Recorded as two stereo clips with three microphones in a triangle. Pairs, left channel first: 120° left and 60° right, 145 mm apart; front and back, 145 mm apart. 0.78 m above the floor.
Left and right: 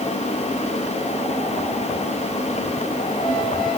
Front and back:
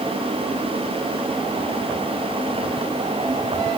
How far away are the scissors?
No scissors in this recording.